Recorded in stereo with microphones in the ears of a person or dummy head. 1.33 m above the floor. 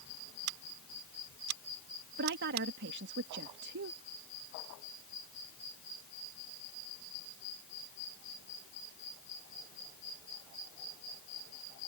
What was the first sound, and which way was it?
Scissors, 85° right.